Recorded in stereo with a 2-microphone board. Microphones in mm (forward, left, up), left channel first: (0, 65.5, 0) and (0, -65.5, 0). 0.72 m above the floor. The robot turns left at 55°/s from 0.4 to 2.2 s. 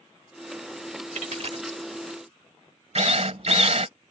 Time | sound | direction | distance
1.1 | a dropped coin | 70° right (ahead or behind) | ?
3.0 | a drill | 55° right (ahead or behind) | ?